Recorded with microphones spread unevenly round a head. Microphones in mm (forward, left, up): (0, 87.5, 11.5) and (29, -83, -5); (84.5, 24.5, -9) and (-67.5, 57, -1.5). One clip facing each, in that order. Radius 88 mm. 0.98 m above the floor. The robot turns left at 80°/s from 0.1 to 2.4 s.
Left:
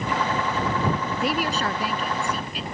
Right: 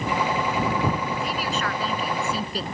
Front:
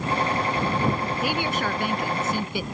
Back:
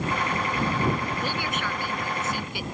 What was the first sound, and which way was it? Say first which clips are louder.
A woman speaking: left 3 dB, front 4 dB; 75° left.